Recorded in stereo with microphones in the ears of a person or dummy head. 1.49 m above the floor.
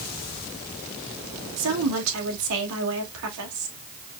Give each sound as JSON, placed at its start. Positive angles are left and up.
{"t": 1.6, "sound": "a woman speaking", "side_deg": -75, "distance_m": 1.7}